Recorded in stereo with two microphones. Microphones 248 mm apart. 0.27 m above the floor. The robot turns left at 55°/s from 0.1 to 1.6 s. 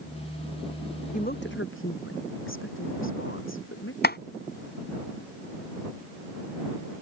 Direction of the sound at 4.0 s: 45° left (ahead or behind).